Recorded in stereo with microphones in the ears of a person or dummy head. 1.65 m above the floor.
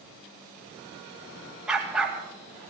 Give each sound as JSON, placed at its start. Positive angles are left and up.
{"t": 1.7, "sound": "a dog barking", "side_deg": -5, "distance_m": 2.5}